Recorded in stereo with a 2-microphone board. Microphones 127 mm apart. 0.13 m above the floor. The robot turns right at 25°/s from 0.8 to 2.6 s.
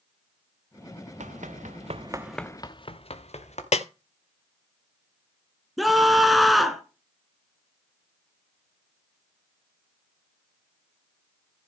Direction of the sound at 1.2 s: 75° right (ahead or behind).